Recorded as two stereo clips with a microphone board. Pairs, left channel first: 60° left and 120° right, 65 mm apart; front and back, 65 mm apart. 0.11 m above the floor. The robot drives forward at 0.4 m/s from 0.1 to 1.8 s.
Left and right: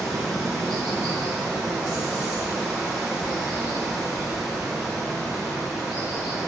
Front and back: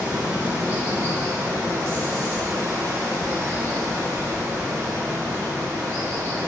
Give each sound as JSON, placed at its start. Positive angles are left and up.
{"t": 0.0, "sound": "running water", "azimuth_deg": 140, "distance_m": 1.5}